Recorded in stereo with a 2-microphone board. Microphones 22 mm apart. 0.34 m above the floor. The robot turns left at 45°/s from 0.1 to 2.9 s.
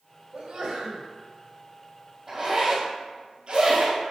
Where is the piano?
No piano in this recording.